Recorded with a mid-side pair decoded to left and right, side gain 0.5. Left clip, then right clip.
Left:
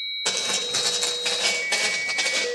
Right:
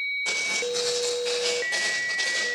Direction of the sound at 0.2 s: 60° left.